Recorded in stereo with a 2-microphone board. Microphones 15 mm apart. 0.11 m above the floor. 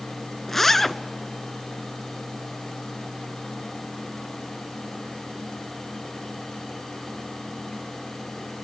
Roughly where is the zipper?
Centre.